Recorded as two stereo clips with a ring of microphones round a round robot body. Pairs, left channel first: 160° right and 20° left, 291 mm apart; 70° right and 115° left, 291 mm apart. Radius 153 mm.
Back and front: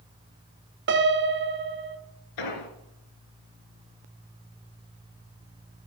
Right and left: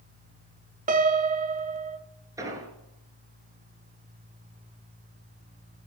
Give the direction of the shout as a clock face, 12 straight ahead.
I don't hear a shout.